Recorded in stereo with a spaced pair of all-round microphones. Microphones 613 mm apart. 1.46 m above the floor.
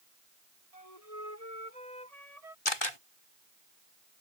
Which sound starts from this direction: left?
A camera shutter, at 2.6 s.